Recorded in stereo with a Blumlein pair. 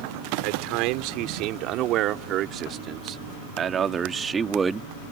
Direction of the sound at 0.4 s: 45° right.